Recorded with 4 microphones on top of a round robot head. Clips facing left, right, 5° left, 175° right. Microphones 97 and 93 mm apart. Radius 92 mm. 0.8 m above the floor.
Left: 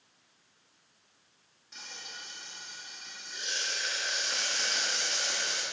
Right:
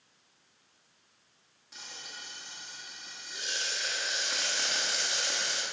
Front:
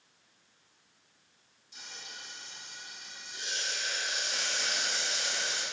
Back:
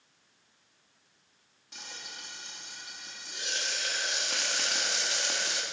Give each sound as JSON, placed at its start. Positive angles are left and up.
{"t": 1.7, "sound": "frying", "azimuth_deg": -175, "distance_m": 1.3}